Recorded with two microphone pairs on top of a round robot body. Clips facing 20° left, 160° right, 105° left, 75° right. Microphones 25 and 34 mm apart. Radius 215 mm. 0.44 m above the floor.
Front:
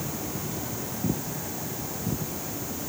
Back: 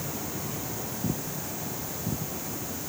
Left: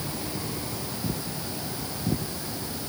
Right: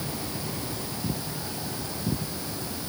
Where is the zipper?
I don't hear a zipper.